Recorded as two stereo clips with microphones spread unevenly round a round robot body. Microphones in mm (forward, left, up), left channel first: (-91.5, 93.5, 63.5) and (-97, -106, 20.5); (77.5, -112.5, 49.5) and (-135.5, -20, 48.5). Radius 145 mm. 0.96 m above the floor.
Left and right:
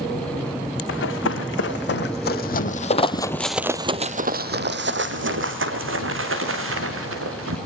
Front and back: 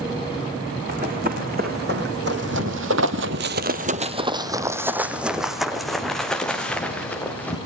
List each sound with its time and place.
0.9 s running footsteps: 95° left, 3.5 m; by 7.6 s 105° right, 5 m